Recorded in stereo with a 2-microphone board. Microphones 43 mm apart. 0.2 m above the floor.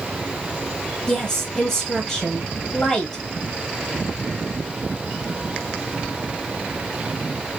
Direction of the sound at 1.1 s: 15° left (ahead or behind).